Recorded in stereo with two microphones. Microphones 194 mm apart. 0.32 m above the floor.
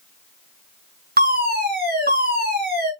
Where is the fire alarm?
55° right (ahead or behind), 6 m.